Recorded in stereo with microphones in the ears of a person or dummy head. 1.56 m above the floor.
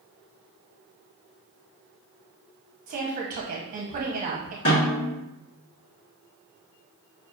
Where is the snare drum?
40° left (ahead or behind), 1.3 m.